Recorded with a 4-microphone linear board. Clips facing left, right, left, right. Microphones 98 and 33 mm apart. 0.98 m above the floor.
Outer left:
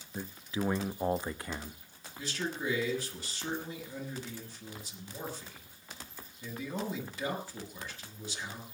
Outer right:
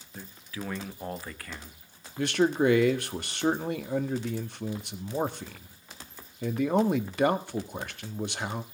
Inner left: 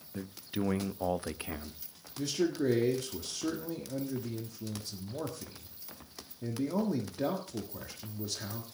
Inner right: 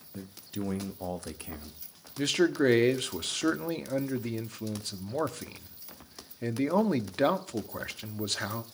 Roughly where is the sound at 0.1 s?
Left.